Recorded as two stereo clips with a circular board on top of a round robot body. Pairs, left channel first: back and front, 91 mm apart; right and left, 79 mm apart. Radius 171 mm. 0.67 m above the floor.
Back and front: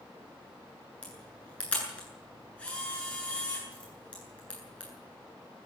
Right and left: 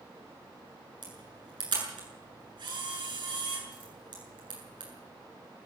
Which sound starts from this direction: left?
A camera shutter, at 1.0 s.